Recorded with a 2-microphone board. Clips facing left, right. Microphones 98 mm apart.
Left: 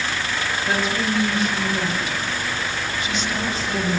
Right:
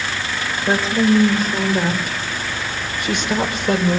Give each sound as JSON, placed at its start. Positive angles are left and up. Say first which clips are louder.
{"t": 0.7, "sound": "a woman speaking", "louder": "right 8 dB", "side_deg": -30, "distance_m": 5.0}